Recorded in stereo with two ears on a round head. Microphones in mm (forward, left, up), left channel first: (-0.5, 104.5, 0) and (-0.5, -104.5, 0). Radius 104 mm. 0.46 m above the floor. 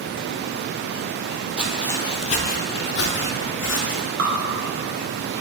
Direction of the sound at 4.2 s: 75° right (ahead or behind).